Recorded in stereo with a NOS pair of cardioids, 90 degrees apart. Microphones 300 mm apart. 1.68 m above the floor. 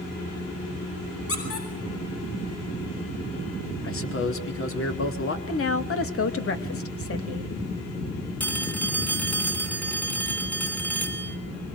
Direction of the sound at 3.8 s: 45° left.